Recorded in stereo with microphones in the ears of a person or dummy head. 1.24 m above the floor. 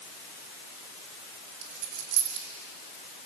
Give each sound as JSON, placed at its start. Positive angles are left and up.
{"t": 1.6, "sound": "a dropped coin", "side_deg": -60, "distance_m": 4.0}